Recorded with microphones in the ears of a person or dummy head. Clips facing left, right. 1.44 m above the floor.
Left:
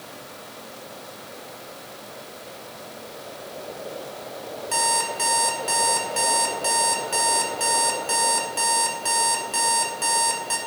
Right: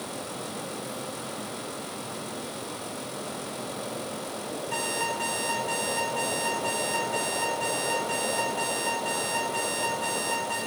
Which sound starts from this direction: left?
An alarm clock, at 4.7 s.